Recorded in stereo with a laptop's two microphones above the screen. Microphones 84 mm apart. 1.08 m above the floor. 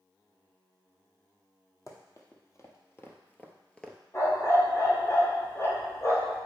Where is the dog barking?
40° left (ahead or behind), 1.5 m.